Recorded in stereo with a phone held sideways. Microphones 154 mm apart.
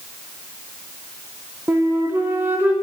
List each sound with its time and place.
1.7 s a flute: 15° right (ahead or behind), 0.8 m